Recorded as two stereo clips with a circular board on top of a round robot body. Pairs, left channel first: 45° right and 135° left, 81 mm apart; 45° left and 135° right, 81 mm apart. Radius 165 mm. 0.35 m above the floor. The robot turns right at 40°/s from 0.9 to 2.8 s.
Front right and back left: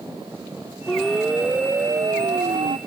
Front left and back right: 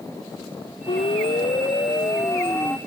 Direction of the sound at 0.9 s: 40° left.